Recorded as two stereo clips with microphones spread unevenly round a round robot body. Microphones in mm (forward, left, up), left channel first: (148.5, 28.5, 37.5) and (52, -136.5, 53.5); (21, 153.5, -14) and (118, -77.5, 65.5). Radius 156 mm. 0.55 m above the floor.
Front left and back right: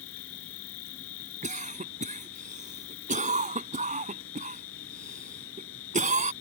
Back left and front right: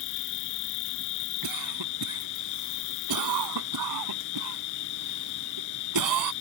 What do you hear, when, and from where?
0.0 s an insect: 105° left
1.4 s a cough: 70° right